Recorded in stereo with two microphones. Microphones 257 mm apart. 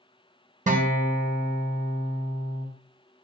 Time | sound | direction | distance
0.7 | a guitar | 30° right (ahead or behind) | 0.9 m